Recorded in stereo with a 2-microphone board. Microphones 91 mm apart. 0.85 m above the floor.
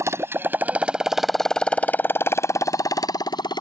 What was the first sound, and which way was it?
A motorcycle, 35° right (ahead or behind).